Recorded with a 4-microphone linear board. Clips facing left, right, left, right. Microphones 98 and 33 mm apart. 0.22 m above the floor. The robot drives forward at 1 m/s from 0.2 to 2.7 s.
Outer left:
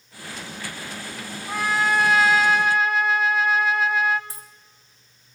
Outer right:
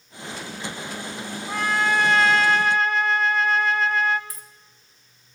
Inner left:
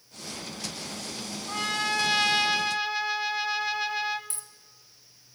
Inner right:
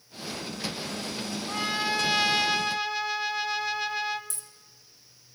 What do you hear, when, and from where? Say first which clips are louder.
1.5 s a trumpet: even, inner left 1 dB; 5° left (ahead or behind), 1.1 m
4.3 s a dropped coin: outer left 1 dB, inner left 1 dB; 30° left (ahead or behind), 1.6 m